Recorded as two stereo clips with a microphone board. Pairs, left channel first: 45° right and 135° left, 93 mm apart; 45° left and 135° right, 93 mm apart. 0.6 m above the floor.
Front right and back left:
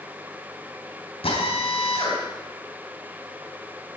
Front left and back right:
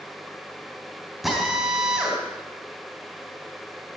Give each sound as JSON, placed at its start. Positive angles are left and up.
{"t": 1.2, "sound": "a drill", "azimuth_deg": -45, "distance_m": 3.5}